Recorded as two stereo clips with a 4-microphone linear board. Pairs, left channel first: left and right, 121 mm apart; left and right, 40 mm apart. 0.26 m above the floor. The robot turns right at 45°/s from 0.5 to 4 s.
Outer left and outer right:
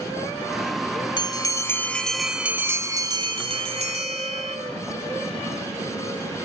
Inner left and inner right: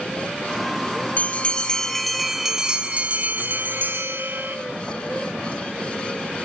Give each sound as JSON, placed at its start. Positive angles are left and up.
{"t": 1.2, "sound": "a bell", "azimuth_deg": 135, "distance_m": 0.5}